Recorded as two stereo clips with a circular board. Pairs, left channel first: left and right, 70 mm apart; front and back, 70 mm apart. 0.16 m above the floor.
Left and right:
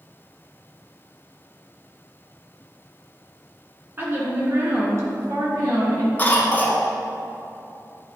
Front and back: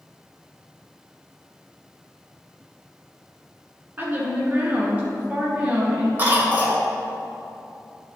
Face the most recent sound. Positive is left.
turn(degrees=140)